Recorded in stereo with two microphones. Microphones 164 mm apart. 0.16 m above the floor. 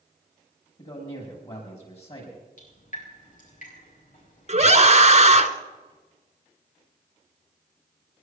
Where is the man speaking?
40° left (ahead or behind), 7 m.